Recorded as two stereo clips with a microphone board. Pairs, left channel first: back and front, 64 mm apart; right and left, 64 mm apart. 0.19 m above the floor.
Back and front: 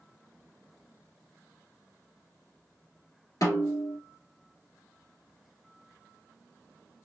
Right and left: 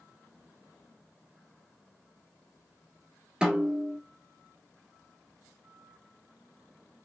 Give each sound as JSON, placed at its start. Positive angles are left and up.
{"t": 3.4, "sound": "a snare drum", "azimuth_deg": 165, "distance_m": 1.6}